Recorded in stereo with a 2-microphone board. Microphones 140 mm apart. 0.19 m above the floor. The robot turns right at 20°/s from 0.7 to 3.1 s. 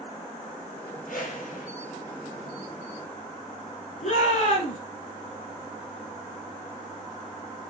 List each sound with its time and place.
1.1 s a whoosh: 75° left (ahead or behind), 3 m; by 1.7 s 70° left (ahead or behind), 3 m
4.0 s a shout: 65° left (ahead or behind), 3.5 m